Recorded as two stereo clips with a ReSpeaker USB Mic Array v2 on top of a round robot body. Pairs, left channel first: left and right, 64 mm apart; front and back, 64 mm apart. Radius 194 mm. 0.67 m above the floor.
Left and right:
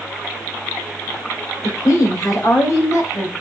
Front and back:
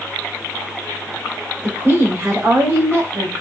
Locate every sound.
1.6 s a woman speaking: 125° left, 5.5 m; by 3.3 s 135° left, 4.5 m